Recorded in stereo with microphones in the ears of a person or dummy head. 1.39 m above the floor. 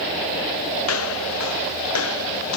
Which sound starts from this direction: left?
Footsteps, at 0.8 s.